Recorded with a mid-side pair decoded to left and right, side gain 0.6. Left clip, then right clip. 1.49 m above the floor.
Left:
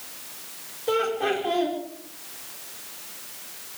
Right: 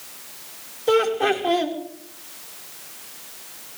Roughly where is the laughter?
Ahead right.